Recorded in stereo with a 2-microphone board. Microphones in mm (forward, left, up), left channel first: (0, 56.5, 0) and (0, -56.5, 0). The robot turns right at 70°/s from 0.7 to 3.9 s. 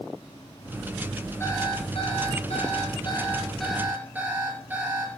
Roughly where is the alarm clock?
Ahead.